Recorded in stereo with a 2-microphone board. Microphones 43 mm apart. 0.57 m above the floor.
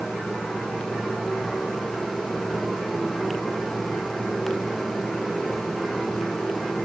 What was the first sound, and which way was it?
Only background noise.